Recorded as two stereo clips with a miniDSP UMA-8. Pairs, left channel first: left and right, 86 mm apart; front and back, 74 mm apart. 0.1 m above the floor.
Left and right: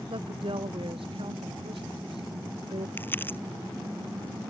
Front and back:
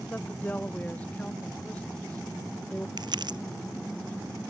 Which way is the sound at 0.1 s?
70° right.